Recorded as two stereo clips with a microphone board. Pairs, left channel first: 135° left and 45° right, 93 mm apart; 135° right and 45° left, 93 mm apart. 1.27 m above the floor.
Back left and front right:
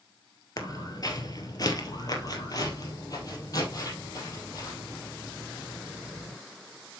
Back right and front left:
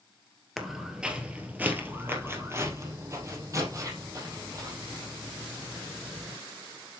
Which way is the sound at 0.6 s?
130° left.